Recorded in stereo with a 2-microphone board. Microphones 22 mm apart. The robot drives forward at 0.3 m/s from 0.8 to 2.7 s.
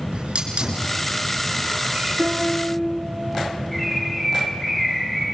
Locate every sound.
0.1 s a hiss: 75° right (ahead or behind), 5 m; by 2.1 s 70° right (ahead or behind), 5 m
2.2 s a piano: 75° right (ahead or behind), 2.5 m
3.7 s a bird: 10° left (ahead or behind), 7.5 m